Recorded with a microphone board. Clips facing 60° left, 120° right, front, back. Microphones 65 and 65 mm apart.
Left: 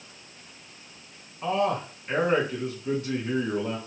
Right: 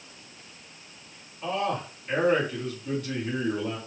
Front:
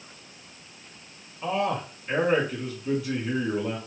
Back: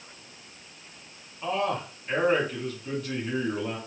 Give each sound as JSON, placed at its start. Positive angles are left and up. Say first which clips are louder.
{"t": 1.4, "sound": "a man speaking", "louder": "left 3 dB, front 1 dB", "azimuth_deg": 85, "distance_m": 1.4}